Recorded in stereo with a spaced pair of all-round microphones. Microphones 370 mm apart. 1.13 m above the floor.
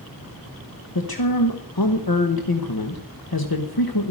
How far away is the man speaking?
About 1.1 m.